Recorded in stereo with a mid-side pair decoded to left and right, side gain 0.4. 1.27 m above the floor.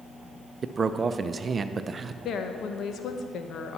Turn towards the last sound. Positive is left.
turn(degrees=70)